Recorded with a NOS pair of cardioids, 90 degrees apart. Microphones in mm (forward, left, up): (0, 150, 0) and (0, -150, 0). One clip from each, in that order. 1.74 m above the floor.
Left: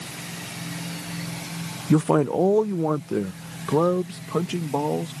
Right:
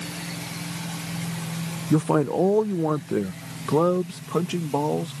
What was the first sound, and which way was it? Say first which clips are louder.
A man speaking: left 1 dB; 35° left.